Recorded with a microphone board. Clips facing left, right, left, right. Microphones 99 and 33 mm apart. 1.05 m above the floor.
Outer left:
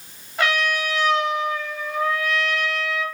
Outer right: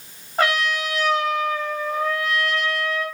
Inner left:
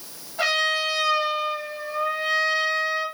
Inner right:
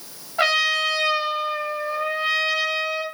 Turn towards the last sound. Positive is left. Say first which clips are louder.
# outer right 1 dB, inner right 3 dB
turn(degrees=-35)  # may be behind; listen again after turning